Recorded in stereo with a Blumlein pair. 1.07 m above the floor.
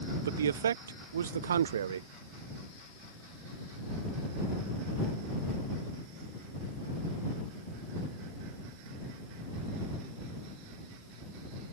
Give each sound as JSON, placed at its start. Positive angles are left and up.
{"t": 0.2, "sound": "a man speaking", "azimuth_deg": -65}